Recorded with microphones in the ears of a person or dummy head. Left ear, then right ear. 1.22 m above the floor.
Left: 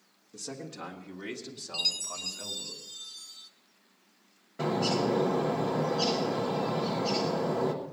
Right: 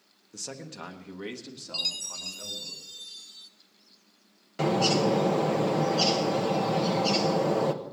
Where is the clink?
I don't hear a clink.